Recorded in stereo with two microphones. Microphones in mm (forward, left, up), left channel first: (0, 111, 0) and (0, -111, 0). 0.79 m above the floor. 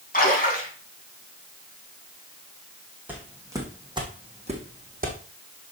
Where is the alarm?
No alarm in this recording.